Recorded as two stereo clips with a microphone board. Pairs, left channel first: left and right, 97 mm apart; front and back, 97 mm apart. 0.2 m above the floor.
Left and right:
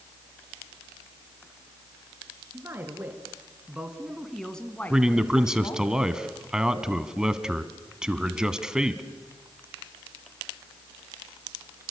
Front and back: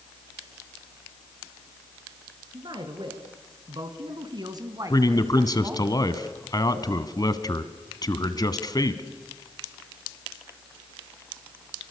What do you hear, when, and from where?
2.5 s a man speaking: 150° right, 3.5 m; by 5.9 s 110° left, 2.5 m
4.9 s a man speaking: 10° right, 1.5 m